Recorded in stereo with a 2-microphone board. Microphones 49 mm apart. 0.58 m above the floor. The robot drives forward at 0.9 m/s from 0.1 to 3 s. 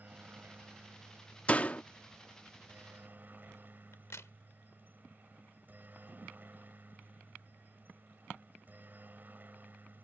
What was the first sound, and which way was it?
A helicopter, 35° right (ahead or behind).